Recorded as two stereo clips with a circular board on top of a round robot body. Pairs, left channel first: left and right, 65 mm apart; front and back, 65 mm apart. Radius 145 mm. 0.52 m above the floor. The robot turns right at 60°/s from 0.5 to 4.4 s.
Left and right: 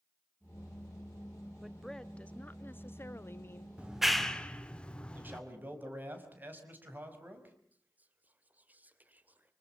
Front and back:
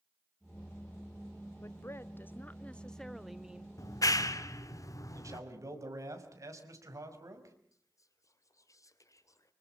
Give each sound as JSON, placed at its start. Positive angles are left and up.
{"t": 1.6, "sound": "a woman speaking", "azimuth_deg": -5, "distance_m": 1.5}
{"t": 3.8, "sound": "a clap", "azimuth_deg": -20, "distance_m": 1.9}
{"t": 5.1, "sound": "a man speaking", "azimuth_deg": -150, "distance_m": 5.0}
{"t": 7.7, "sound": "whispering", "azimuth_deg": -25, "distance_m": 2.5}